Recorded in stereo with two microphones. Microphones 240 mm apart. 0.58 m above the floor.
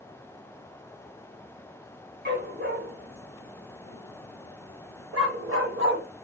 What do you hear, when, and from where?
2.2 s a dog barking: 45° right (ahead or behind), 1.8 m; by 6.0 s 50° right (ahead or behind), 1.1 m